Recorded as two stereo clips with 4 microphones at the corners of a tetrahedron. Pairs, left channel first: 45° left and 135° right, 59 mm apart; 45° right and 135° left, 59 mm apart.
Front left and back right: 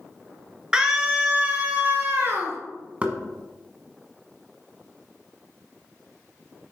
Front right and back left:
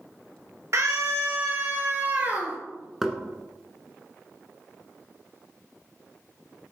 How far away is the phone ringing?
No phone ringing in this recording.